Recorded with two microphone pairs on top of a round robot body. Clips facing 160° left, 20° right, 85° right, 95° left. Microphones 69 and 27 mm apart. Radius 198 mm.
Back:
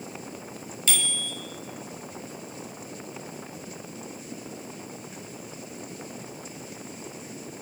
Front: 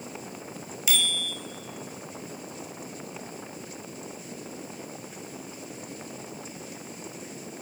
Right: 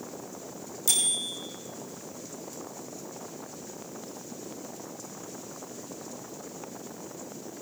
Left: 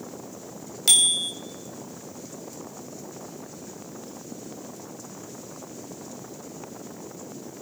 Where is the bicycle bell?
60° left, 2.5 m.